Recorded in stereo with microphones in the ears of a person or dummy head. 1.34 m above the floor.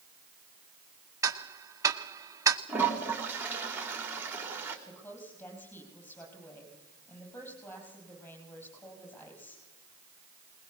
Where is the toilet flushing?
5° right (ahead or behind), 2.5 m.